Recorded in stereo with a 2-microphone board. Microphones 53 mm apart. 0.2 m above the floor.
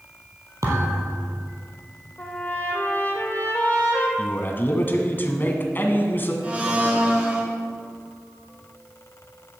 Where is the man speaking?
40° left (ahead or behind), 1.8 m.